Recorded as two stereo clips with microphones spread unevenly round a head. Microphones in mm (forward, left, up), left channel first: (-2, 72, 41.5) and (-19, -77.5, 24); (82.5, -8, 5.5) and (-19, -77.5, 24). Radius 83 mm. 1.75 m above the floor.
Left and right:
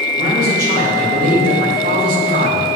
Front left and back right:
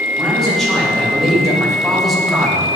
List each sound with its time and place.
0.2 s a man speaking: 55° right, 3.5 m; by 2.7 s 60° right, 1.8 m